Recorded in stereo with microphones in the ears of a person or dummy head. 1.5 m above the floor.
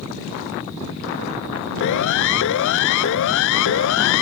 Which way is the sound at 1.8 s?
70° left (ahead or behind).